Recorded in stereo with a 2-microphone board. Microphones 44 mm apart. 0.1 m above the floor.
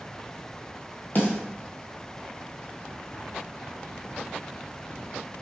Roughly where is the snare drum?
Left.